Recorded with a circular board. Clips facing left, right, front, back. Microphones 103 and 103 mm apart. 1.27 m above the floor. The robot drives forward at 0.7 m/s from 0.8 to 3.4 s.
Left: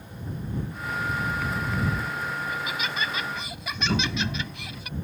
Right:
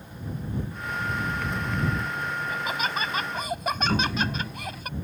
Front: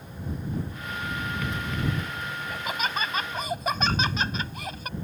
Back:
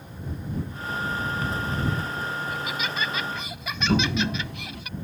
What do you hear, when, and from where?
2.5 s laughter: 45° right
3.9 s a toilet flushing: straight behind